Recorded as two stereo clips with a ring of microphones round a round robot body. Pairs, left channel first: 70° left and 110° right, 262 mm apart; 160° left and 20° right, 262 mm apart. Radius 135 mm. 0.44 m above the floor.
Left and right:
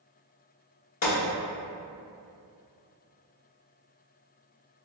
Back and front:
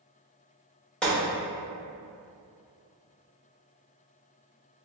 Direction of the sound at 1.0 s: 70° left.